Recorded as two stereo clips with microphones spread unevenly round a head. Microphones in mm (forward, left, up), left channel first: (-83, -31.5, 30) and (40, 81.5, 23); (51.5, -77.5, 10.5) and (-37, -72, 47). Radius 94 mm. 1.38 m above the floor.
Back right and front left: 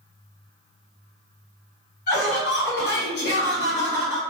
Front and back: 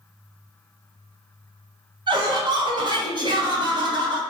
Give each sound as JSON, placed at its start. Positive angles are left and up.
{"t": 2.1, "sound": "laughter", "azimuth_deg": -160, "distance_m": 1.4}